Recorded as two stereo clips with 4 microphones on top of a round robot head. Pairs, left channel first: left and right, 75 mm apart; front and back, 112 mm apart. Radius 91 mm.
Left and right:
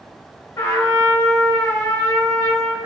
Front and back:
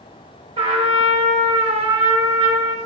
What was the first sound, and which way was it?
A trumpet, 145° left.